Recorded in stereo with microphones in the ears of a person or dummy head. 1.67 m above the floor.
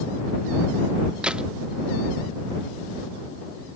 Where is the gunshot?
5° right (ahead or behind).